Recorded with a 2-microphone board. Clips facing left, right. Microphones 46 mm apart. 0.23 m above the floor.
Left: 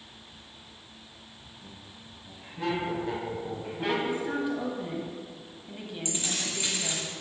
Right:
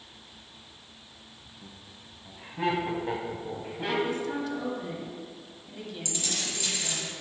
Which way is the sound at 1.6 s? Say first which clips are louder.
Left 1 dB; 55° right (ahead or behind).